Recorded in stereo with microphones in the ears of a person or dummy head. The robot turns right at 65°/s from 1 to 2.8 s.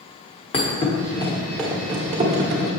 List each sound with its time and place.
0.5 s a thud: 35° left (ahead or behind), 1.1 m; by 2.7 s 45° right (ahead or behind), 1.1 m